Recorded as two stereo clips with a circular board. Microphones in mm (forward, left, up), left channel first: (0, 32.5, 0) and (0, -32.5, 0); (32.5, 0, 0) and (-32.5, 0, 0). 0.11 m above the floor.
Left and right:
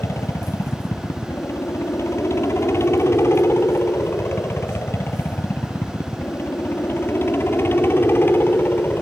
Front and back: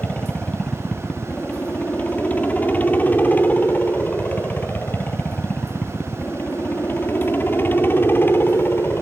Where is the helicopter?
60° left; by 9.0 s 45° left.